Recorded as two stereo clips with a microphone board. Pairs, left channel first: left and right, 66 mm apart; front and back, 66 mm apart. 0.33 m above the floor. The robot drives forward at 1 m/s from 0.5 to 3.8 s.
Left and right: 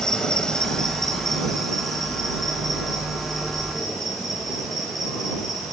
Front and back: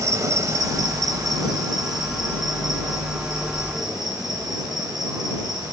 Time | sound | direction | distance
0.0 | an insect | 165° left | 0.8 m